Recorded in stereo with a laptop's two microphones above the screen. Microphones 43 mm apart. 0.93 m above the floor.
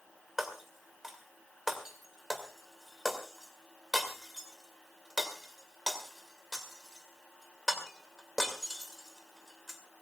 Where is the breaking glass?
10° right (ahead or behind), 2 m.